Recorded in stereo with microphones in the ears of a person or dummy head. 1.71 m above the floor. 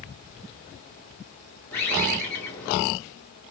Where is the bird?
10° left (ahead or behind), 1.2 m.